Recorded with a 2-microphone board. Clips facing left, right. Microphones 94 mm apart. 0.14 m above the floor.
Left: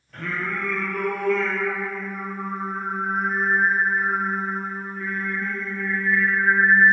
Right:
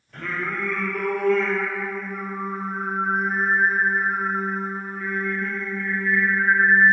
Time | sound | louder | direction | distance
0.1 | singing | even | centre (ahead or behind) | 0.6 m